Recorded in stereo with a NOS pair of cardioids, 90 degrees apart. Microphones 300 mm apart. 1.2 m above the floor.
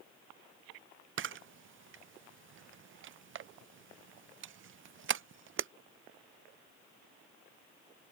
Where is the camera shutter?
40° right.